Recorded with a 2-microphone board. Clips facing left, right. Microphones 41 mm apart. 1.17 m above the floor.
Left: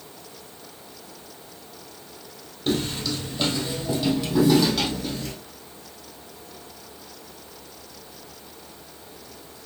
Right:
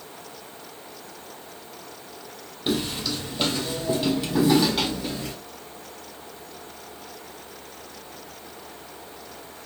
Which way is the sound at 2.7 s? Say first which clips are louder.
Left 1 dB; 15° right (ahead or behind).